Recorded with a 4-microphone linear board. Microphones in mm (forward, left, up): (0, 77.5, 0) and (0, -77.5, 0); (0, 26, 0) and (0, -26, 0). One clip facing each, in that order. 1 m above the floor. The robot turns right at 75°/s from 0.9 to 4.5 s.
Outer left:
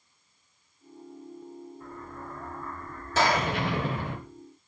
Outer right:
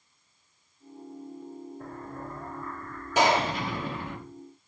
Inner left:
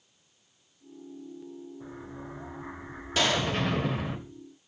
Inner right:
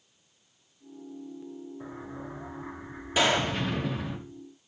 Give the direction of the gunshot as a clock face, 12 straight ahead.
5 o'clock.